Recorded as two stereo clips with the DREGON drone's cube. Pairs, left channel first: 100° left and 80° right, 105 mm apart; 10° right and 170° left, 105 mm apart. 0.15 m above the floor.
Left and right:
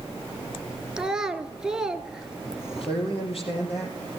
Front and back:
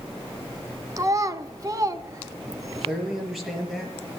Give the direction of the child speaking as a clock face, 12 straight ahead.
5 o'clock.